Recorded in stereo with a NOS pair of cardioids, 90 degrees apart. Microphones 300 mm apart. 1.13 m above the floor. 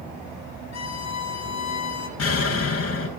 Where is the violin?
55° left, 1.8 m.